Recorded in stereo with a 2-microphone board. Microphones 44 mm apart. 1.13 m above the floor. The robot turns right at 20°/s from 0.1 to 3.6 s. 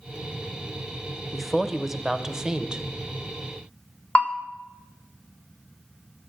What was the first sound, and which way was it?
A woman speaking, straight behind.